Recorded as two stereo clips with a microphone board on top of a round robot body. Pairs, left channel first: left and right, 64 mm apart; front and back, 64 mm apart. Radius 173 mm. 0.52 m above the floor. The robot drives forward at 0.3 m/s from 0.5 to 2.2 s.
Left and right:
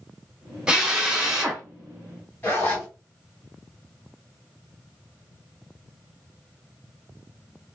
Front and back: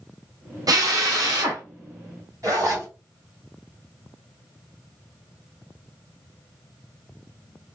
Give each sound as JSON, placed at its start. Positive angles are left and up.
{"t": 0.7, "sound": "a drill", "azimuth_deg": -165, "distance_m": 0.8}
{"t": 2.4, "sound": "a zipper", "azimuth_deg": 150, "distance_m": 1.7}